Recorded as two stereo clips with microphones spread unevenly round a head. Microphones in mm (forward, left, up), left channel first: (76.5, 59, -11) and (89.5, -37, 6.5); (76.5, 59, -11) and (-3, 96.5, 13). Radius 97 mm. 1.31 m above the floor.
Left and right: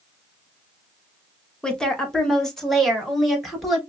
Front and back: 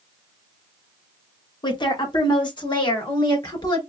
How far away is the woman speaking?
About 1.4 m.